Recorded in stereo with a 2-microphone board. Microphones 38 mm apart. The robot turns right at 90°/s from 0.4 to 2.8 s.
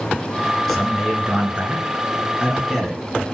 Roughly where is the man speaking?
Behind.